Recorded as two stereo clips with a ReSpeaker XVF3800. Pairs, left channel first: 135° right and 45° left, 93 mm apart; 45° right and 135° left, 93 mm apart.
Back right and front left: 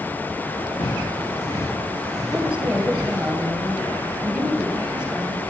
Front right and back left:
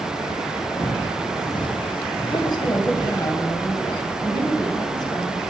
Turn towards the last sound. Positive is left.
turn(degrees=-30)